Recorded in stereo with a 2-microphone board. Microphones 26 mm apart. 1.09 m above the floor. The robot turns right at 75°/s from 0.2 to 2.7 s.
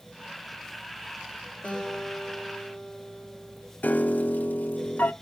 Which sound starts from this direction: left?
A piano, at 3.8 s.